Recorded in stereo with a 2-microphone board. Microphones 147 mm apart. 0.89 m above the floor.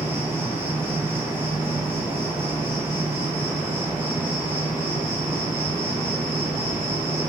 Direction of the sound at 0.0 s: 15° right (ahead or behind).